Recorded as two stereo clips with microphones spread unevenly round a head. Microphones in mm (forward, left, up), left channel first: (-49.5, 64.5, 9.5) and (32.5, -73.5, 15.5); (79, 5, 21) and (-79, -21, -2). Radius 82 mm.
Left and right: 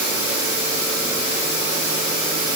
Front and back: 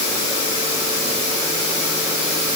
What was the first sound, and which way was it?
Only background noise.